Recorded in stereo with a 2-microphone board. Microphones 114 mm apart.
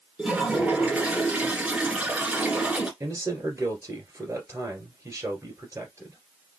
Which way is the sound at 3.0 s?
25° right (ahead or behind).